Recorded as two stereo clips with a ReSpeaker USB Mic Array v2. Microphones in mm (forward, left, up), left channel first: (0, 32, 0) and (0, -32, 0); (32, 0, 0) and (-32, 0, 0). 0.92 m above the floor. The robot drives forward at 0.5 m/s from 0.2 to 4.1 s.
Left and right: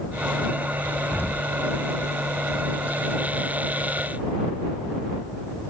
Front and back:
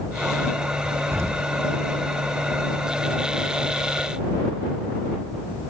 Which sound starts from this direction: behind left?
An explosion, at 1.1 s.